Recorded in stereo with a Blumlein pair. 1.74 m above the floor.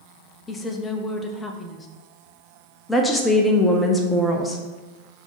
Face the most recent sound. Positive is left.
turn(degrees=10)